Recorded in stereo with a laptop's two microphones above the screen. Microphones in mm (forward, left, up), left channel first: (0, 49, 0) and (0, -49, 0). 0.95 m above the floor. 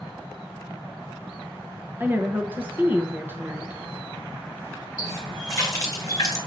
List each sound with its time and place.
2.0 s a woman speaking: 20° right (ahead or behind), 0.7 m
5.0 s a running tap: 35° left (ahead or behind), 1.8 m